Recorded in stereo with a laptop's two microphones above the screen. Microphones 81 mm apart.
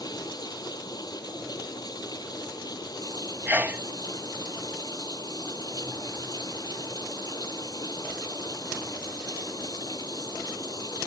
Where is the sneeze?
25° right (ahead or behind).